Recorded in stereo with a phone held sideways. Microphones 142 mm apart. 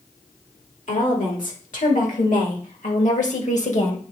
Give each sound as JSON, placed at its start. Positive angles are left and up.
{"t": 0.9, "sound": "a woman speaking", "side_deg": 85, "distance_m": 3.5}